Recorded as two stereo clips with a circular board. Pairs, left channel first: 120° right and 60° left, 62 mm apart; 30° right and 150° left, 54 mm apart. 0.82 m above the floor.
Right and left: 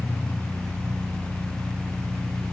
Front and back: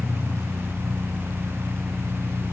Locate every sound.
0.0 s an engine running: straight behind, 1.1 m